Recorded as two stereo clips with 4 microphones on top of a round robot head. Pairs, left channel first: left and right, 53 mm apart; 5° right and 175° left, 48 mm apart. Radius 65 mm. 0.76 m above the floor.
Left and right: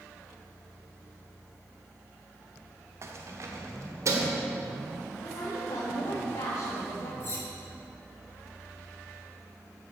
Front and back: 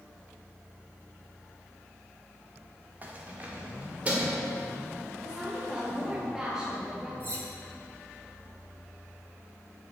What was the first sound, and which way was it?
Keys jangling, 125° right.